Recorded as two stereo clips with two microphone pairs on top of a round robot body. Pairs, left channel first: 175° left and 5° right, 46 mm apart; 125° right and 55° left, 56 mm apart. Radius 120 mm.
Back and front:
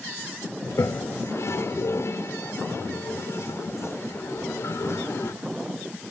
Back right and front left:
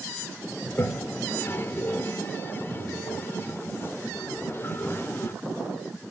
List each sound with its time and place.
0.6 s a toilet flushing: straight behind, 0.9 m